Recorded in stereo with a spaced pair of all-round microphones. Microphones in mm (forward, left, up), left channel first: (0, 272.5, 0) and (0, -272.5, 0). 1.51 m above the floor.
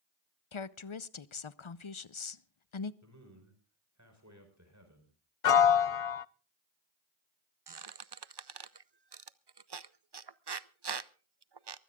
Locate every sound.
0.5 s a woman speaking: 60° left (ahead or behind), 0.7 m
3.0 s a man speaking: 30° right (ahead or behind), 5 m
5.4 s a piano: 75° left (ahead or behind), 0.6 m
7.7 s a squeak: 50° right (ahead or behind), 0.6 m